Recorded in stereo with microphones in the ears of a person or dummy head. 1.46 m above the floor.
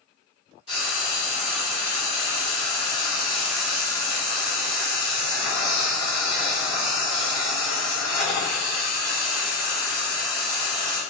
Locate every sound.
0.7 s frying: 35° left (ahead or behind), 1.2 m